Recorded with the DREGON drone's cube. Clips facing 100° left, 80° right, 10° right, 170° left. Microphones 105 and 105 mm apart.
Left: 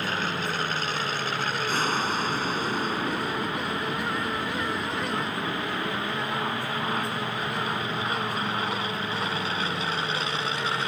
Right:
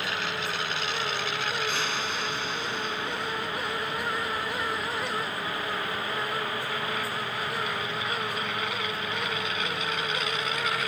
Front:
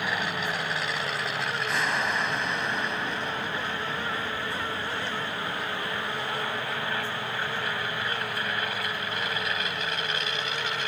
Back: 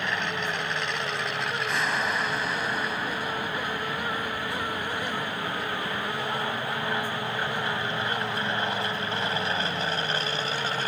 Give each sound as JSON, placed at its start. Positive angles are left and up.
{"t": 0.0, "sound": "an aircraft", "azimuth_deg": 70}